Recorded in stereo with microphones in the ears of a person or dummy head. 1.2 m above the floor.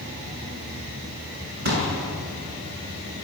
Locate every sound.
1.6 s a pop: 50° right (ahead or behind), 6 m